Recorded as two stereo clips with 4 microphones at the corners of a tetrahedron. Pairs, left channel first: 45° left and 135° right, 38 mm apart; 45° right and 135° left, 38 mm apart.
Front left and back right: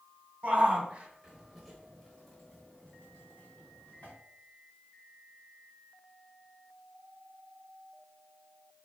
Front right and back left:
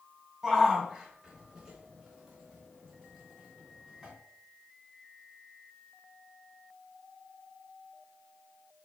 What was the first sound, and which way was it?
A shout, 150° right.